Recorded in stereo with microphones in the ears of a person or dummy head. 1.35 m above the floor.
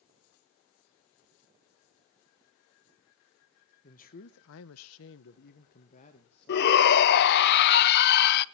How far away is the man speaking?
About 0.9 m.